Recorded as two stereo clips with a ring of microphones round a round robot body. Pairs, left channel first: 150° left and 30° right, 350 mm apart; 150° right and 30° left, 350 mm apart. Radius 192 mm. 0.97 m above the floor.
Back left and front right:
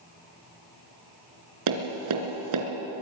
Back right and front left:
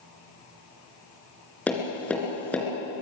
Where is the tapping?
65° right, 3 m.